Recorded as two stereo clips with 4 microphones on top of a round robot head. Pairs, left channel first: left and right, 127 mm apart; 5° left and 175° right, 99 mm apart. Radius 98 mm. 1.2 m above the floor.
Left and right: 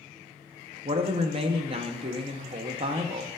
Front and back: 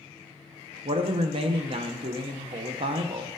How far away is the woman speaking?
About 0.5 m.